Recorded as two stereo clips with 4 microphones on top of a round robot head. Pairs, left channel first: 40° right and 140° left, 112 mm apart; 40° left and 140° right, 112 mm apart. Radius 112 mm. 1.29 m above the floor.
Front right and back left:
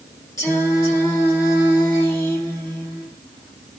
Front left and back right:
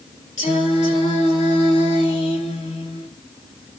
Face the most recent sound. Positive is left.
turn(degrees=25)